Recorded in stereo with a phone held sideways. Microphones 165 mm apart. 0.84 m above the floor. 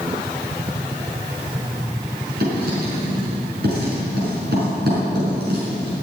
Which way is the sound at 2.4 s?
65° right (ahead or behind).